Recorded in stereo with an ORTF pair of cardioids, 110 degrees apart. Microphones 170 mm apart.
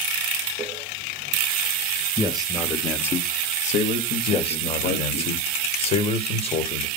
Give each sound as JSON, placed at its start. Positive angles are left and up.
{"t": 2.2, "sound": "a man speaking", "azimuth_deg": -30, "distance_m": 1.5}
{"t": 4.3, "sound": "a man speaking", "azimuth_deg": 35, "distance_m": 1.7}